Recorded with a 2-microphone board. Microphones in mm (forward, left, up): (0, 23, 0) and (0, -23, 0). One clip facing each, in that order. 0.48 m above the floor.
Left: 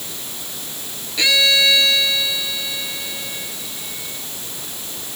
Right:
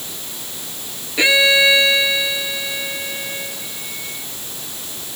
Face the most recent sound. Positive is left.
turn(degrees=-25)  # may be behind; listen again after turning